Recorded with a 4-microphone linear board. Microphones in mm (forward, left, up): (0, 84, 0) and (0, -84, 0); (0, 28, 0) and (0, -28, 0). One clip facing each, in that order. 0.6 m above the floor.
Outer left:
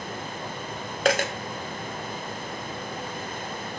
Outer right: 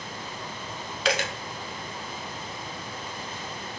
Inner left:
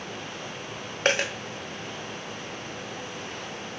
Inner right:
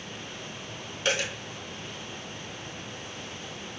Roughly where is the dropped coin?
Left.